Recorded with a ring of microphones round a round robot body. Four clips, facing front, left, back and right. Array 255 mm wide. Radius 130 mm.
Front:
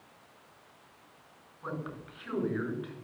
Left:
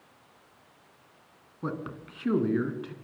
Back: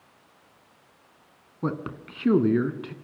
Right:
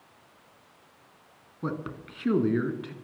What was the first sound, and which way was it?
A man speaking, 175° right.